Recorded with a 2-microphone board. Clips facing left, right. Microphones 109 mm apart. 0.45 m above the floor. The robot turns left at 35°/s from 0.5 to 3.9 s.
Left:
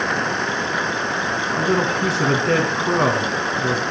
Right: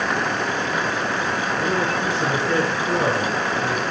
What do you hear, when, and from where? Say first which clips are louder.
1.5 s a man speaking: left 4 dB; 115° left, 3.5 m; by 3.8 s 35° left, 3.5 m